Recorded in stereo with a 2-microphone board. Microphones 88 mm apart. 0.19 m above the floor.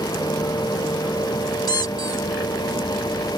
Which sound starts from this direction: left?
A squeak, at 1.7 s.